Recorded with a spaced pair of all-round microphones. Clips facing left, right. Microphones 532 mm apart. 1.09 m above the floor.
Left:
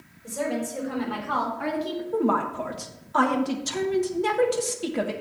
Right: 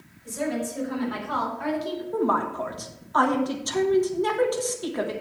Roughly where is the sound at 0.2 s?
Left.